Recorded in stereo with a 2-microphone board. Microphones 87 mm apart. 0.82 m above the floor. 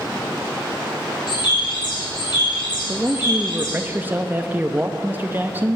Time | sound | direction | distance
1.3 | a bird | 60° left (ahead or behind) | 3.5 m
2.9 | a man speaking | 25° right (ahead or behind) | 0.5 m